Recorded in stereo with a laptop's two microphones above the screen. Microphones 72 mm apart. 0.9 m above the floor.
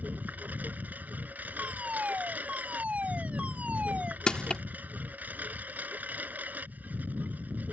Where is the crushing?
10° left (ahead or behind).